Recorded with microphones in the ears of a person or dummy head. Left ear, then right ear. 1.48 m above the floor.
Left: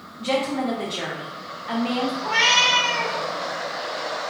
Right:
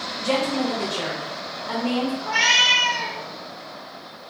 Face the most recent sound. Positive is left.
turn(degrees=30)  # may be behind; listen again after turning